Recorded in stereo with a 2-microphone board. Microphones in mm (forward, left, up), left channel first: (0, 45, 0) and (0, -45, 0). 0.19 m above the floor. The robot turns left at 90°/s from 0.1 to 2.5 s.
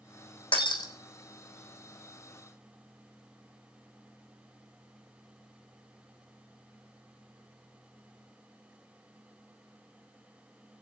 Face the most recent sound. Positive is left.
turn(degrees=-105)